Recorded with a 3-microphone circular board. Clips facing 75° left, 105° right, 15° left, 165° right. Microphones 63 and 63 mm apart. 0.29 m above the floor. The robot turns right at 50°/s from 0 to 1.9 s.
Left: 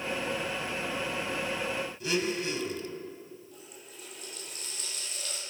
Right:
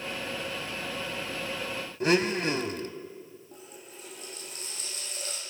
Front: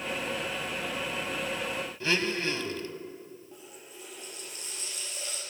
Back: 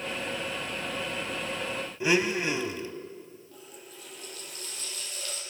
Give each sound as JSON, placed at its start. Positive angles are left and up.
{"t": 2.0, "sound": "a blender", "azimuth_deg": -95, "distance_m": 1.0}
{"t": 3.5, "sound": "a running tap", "azimuth_deg": -50, "distance_m": 6.5}